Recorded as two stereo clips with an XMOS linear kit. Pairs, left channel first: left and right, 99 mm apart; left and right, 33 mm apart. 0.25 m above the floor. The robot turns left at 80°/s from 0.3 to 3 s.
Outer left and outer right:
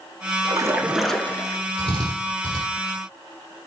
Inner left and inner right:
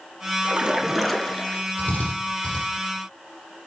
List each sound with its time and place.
0.5 s a splash: 130° right, 0.7 m; by 1.6 s 135° left, 0.7 m
1.8 s a drill: 75° left (ahead or behind), 3.5 m; by 2.6 s 40° left (ahead or behind), 3.5 m